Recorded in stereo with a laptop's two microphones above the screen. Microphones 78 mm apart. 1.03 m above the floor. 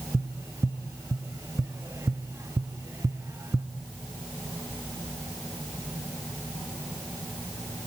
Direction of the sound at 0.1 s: 35° right (ahead or behind).